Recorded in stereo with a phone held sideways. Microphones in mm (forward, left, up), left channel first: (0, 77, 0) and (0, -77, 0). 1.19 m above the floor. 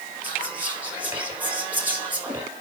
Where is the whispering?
10° right (ahead or behind), 3 m.